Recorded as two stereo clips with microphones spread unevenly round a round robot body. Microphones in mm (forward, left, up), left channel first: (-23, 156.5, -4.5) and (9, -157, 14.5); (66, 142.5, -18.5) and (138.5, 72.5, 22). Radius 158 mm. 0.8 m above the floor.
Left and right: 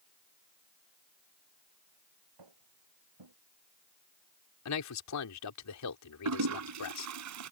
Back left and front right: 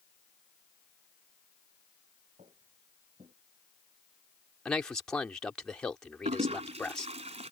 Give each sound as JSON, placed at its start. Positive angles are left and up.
{"t": 2.4, "sound": "footsteps", "azimuth_deg": -105}
{"t": 4.7, "sound": "a man speaking", "azimuth_deg": 60}
{"t": 6.2, "sound": "a toilet flushing", "azimuth_deg": -45}